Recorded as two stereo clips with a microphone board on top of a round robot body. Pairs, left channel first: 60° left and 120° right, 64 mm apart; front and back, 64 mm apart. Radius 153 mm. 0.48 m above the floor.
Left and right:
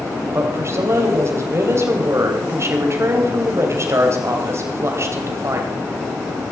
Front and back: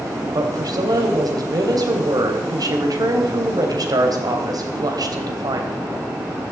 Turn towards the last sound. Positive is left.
turn(degrees=-165)